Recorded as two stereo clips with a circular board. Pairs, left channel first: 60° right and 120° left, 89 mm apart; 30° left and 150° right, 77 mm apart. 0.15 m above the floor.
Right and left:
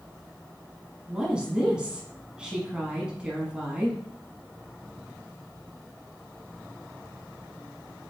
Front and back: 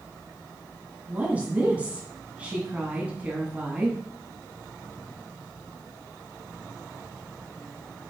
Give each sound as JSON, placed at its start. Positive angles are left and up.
{"t": 1.1, "sound": "a woman speaking", "azimuth_deg": 180, "distance_m": 1.1}